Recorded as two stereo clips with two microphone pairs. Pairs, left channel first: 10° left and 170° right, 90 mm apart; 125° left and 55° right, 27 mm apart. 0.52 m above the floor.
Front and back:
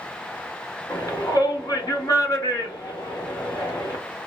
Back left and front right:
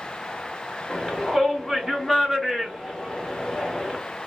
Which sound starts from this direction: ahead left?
A shout, at 0.9 s.